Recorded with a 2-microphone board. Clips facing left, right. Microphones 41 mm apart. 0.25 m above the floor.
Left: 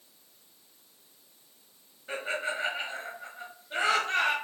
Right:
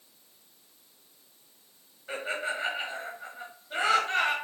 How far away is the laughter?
About 1.1 m.